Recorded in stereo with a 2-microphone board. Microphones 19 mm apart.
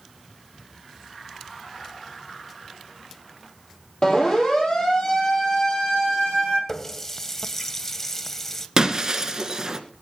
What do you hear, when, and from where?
4.0 s a siren: 40° left (ahead or behind), 6.5 m; by 6.6 s 60° left (ahead or behind), 9.5 m
6.7 s a running tap: 20° left (ahead or behind), 0.8 m
8.8 s breaking glass: 35° right (ahead or behind), 1.6 m